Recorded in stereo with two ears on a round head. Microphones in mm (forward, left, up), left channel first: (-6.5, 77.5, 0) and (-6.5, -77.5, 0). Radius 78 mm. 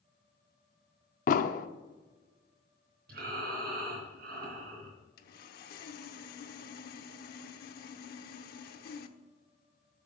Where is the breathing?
55° right (ahead or behind), 3.5 m.